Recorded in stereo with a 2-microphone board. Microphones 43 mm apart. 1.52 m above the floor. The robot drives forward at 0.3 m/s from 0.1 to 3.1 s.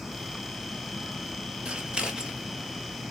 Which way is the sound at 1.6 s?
25° right (ahead or behind).